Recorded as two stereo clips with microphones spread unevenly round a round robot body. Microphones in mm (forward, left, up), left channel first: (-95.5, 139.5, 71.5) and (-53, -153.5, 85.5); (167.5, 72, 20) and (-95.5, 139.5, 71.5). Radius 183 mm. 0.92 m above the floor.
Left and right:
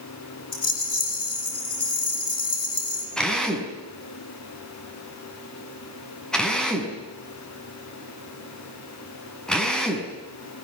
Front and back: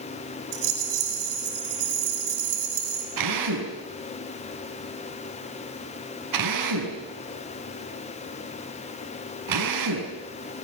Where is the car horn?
I don't hear a car horn.